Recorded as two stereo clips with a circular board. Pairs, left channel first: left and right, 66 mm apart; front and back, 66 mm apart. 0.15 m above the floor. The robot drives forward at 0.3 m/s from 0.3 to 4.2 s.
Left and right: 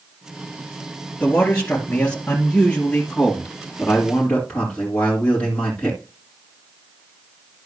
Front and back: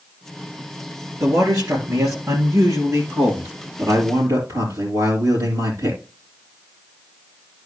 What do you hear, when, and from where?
1.2 s a man speaking: 150° left, 2.5 m; by 6.0 s 160° left, 3 m